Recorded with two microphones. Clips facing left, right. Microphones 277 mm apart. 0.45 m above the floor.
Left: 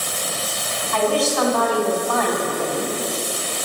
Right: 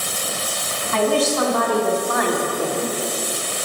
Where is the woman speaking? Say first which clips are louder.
Right 1 dB; 30° right (ahead or behind), 4 m; by 3.0 s centre (ahead or behind), 2.5 m.